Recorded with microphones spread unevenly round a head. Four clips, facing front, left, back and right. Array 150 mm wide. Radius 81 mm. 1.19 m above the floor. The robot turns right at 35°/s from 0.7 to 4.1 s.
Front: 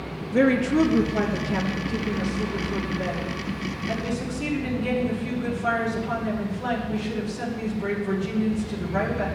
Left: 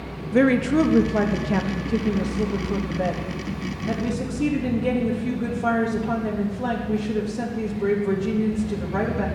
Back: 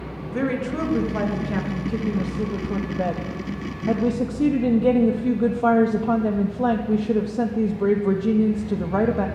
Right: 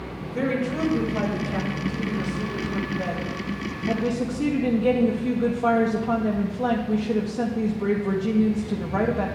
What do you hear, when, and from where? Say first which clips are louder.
0.3 s a woman speaking: left 8 dB, front 5 dB; 65° left, 1.6 m; by 9.3 s 175° right, 1.6 m